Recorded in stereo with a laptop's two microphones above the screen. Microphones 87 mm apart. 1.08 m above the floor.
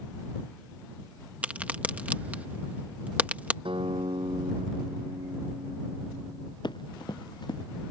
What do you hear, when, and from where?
1.4 s a crack: 20° right (ahead or behind)
3.6 s a guitar: 85° right
6.6 s running footsteps: 60° left (ahead or behind)